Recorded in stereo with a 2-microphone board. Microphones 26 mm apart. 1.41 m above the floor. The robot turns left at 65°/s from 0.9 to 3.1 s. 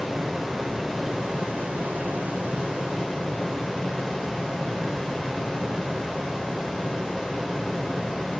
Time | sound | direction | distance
0.0 | running water | 5° right | 6 m